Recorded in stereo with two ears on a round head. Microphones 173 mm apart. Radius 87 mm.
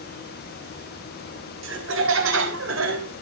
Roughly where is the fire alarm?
I don't hear a fire alarm.